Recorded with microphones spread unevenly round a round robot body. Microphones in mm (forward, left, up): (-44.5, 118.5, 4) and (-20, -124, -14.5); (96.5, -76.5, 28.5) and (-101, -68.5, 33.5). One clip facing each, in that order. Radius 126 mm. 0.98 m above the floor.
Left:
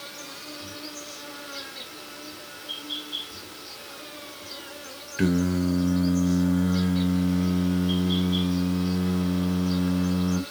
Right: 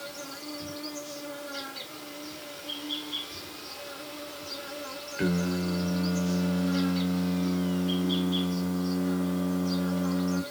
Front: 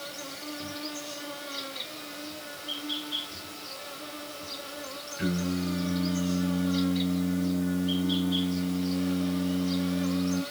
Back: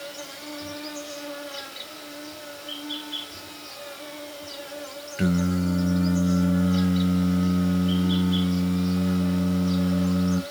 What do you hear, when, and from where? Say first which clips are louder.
0.0 s an insect: right 3 dB, back 2 dB; 10° right, 1.7 m
5.2 s singing: left 5 dB, back 5 dB; 155° left, 0.7 m